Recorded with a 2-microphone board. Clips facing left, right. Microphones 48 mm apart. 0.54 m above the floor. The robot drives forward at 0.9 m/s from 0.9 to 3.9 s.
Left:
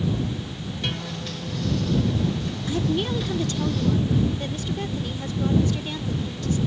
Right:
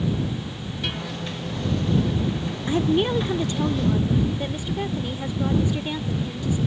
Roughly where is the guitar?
Centre.